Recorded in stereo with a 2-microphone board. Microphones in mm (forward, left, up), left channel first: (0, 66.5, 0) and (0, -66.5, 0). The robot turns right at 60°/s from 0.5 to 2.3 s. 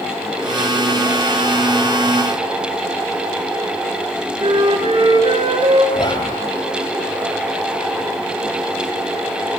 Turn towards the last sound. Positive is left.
turn(degrees=35)  # may be behind; listen again after turning